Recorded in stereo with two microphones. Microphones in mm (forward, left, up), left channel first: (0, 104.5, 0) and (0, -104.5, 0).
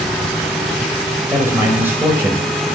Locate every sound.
1.3 s a man speaking: 10° right (ahead or behind), 1.7 m